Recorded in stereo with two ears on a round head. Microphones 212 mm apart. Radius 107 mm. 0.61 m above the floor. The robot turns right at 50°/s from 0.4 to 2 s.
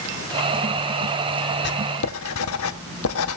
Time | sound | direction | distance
1.6 | writing | 45° left (ahead or behind) | 0.9 m